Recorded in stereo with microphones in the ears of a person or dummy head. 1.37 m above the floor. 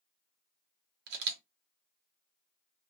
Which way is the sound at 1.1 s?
65° right (ahead or behind).